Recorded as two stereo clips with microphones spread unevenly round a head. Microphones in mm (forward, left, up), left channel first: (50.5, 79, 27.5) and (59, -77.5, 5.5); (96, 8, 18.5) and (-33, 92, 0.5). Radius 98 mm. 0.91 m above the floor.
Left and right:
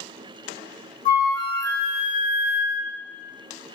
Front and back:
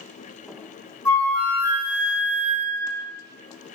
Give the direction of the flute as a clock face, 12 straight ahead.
11 o'clock.